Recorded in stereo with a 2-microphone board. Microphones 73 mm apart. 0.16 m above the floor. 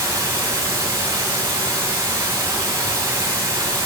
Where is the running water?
40° right (ahead or behind), 1.9 m.